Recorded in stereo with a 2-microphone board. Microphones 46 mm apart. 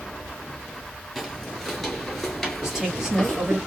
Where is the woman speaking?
10° right (ahead or behind), 1.9 m.